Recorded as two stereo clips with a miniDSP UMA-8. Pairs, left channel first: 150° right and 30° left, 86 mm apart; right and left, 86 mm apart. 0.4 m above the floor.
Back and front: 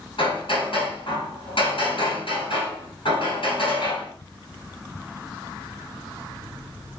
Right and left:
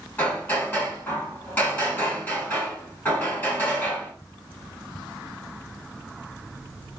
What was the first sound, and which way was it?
Hammering, 155° right.